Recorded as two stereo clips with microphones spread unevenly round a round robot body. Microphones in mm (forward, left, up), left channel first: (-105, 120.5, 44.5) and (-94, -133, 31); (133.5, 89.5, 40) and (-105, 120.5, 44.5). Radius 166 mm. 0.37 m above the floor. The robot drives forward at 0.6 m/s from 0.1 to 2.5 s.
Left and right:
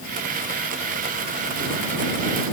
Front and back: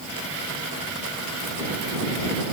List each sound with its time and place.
Only background noise.